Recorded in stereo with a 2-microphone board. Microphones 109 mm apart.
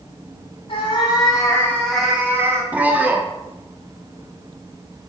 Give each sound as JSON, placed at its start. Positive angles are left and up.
{"t": 0.7, "sound": "a cat meowing", "side_deg": 55, "distance_m": 1.3}
{"t": 2.7, "sound": "a man speaking", "side_deg": -15, "distance_m": 0.6}